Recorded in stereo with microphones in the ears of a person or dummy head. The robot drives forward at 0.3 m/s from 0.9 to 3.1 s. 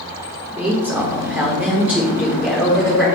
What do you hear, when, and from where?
0.5 s a woman speaking: 10° right (ahead or behind), 0.8 m; by 3.1 s 5° right (ahead or behind), 1.5 m